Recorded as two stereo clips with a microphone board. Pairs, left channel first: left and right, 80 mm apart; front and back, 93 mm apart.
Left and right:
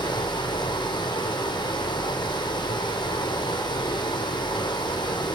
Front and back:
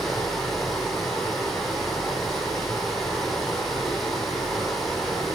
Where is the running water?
85° left, 4.5 m.